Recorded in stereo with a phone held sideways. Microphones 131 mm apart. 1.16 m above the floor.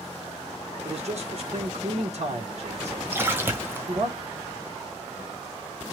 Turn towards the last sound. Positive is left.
turn(degrees=-20)  # may be behind; listen again after turning